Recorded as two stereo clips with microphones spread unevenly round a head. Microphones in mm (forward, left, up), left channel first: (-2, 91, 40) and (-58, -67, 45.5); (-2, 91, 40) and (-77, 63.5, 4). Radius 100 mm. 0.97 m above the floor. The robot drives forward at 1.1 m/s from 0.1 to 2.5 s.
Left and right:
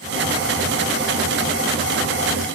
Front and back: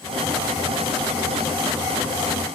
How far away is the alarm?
I don't hear an alarm.